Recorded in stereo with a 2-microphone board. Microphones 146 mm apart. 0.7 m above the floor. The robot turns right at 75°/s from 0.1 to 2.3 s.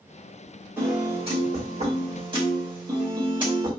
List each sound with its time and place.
0.8 s a piano: 165° right, 1.7 m; by 3.7 s 50° right, 1.7 m